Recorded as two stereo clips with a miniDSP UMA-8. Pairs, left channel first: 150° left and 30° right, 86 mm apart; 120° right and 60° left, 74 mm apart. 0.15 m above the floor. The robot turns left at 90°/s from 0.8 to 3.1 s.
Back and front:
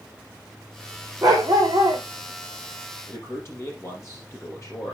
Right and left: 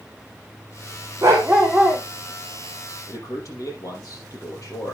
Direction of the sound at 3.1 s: 155° right.